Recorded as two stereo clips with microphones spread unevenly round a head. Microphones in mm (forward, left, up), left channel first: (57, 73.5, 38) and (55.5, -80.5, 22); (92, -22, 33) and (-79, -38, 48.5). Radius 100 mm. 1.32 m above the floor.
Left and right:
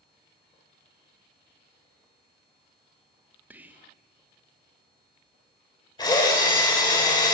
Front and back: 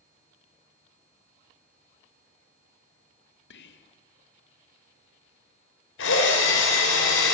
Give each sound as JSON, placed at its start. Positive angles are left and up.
{"t": 3.5, "sound": "whispering", "azimuth_deg": -10, "distance_m": 1.6}
{"t": 6.0, "sound": "a drill", "azimuth_deg": 25, "distance_m": 5.5}